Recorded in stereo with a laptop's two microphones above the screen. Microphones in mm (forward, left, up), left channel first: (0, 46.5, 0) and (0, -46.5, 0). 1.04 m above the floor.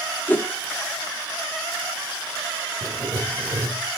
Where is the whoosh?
20° left (ahead or behind), 0.6 m.